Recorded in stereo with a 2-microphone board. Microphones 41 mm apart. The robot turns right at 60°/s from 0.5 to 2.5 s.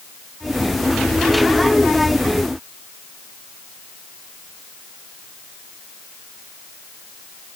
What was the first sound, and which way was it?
Only background noise.